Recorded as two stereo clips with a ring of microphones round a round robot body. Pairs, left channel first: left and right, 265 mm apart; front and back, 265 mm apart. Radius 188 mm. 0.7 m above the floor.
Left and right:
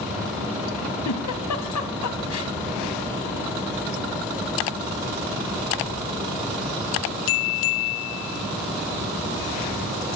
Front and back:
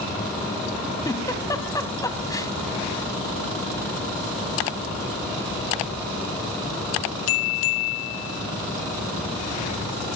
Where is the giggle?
80° left, 2 m.